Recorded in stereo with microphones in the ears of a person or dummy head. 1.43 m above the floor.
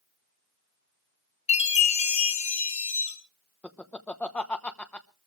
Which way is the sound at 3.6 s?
15° left (ahead or behind).